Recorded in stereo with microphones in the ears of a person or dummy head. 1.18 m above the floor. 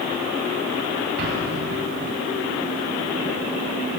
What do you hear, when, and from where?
1.2 s an explosion: 65° right (ahead or behind), 6.5 m